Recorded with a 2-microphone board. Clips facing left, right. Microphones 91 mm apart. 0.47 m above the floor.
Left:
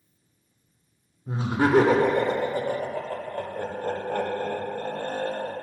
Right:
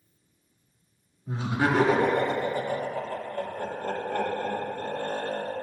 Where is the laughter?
40° left (ahead or behind), 1.2 m; by 5.5 s 45° left (ahead or behind), 2.5 m.